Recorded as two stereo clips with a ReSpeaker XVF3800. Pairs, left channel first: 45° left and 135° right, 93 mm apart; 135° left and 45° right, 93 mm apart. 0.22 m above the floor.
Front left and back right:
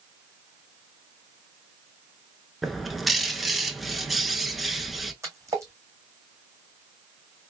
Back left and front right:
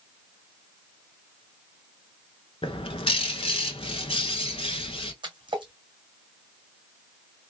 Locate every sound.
2.6 s a bird: 135° left, 0.6 m
5.2 s a splash: 75° right, 2.0 m